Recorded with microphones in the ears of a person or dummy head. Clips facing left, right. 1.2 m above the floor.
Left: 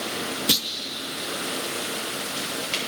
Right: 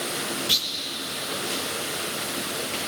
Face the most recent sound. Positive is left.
turn(degrees=70)  # may be behind; listen again after turning